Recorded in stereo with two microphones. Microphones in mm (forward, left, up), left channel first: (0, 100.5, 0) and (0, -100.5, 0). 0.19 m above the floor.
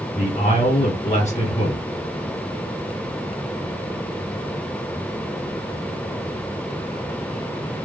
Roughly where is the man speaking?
Left.